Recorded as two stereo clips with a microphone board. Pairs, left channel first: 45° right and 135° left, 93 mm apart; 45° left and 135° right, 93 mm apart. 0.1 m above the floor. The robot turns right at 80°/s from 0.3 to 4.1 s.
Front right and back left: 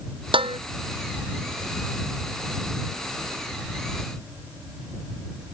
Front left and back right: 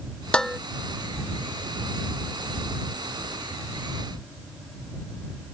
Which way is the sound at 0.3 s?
125° left.